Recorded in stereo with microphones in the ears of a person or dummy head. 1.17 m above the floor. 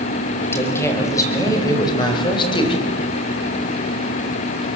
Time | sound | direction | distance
0.4 | a woman speaking | 15° left (ahead or behind) | 5.5 m